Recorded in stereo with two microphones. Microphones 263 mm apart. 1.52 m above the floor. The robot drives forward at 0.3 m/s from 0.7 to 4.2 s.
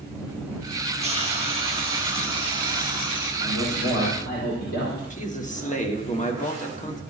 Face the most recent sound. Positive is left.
turn(degrees=30)  # may be behind; listen again after turning